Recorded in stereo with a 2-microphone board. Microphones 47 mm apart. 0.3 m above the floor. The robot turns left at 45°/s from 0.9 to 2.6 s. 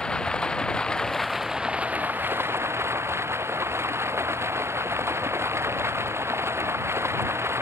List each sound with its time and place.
0.0 s running water: 15° left; by 7.6 s 60° right